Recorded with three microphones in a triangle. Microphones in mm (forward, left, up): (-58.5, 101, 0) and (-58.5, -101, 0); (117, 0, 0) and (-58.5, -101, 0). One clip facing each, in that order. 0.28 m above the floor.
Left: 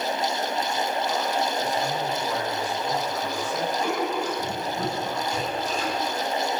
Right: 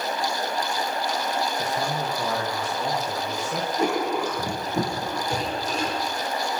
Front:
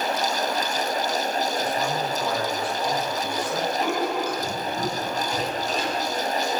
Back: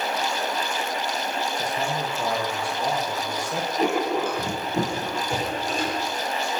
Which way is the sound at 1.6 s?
85° right.